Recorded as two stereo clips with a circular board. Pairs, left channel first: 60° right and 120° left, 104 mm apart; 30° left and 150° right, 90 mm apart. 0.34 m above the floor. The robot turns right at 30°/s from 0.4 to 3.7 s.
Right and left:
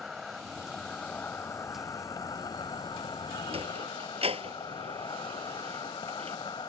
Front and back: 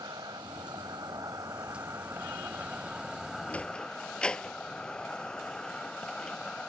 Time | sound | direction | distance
0.0 | an insect | 150° right | ?
3.5 | a sliding door | 105° left | ?